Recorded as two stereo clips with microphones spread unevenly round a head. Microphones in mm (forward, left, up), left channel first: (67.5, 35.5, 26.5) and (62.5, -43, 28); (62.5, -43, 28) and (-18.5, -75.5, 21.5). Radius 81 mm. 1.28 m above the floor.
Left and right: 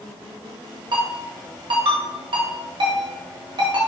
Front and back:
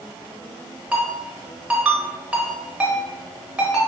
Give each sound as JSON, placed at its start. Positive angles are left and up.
{"t": 0.9, "sound": "a ringtone", "azimuth_deg": -80, "distance_m": 1.1}